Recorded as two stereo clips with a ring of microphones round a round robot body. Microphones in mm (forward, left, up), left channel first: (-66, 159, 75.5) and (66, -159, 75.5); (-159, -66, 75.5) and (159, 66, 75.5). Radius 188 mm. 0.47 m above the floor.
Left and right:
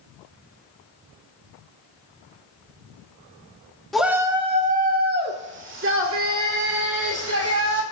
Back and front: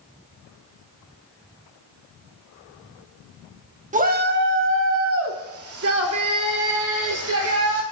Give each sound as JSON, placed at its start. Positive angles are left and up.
{"t": 3.9, "sound": "a shout", "azimuth_deg": 25, "distance_m": 1.2}